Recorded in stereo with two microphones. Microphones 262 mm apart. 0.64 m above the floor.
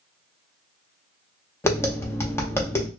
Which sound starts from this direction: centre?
Tapping, at 1.6 s.